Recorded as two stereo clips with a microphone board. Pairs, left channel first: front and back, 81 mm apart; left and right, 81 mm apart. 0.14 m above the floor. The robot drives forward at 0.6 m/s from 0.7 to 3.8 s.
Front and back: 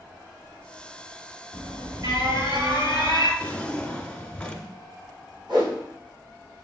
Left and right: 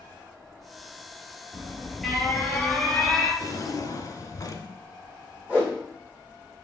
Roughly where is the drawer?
Ahead left.